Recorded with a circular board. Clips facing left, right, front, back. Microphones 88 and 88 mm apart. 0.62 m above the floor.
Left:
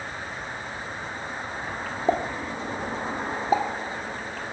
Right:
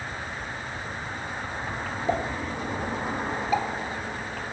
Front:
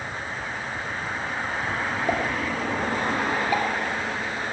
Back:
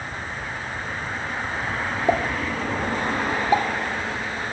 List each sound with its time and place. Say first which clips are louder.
2.1 s a pop: left 3 dB, back 5 dB; 120° left, 1.5 m